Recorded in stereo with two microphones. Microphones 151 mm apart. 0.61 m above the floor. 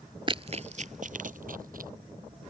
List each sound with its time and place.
0.3 s running footsteps: 35° right (ahead or behind); by 1.9 s 70° right (ahead or behind)